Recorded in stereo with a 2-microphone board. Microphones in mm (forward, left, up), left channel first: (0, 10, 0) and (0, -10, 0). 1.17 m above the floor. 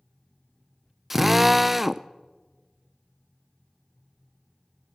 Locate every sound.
1.1 s a drill: 15° right (ahead or behind), 0.6 m